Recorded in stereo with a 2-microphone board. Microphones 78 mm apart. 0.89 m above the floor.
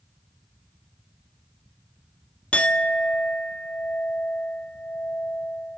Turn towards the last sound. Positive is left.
turn(degrees=15)  # may be behind; listen again after turning